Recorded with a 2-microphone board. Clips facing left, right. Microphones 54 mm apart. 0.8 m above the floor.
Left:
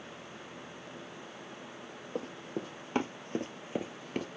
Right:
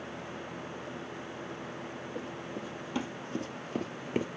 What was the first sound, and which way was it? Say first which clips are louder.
Running footsteps: left 4 dB; 60° left (ahead or behind).